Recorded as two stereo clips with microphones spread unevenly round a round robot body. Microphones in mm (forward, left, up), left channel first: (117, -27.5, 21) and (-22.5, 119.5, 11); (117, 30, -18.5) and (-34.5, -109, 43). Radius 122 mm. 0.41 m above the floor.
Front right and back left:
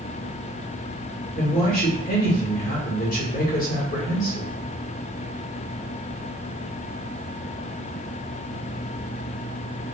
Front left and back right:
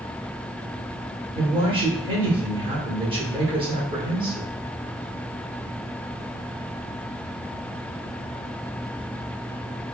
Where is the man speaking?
65° right, 1.2 m.